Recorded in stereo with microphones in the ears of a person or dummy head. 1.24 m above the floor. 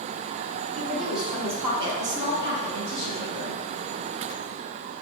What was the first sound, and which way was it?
A woman speaking, 10° left (ahead or behind).